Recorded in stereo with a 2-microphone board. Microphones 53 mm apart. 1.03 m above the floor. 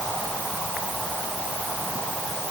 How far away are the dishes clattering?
No dishes clattering in this recording.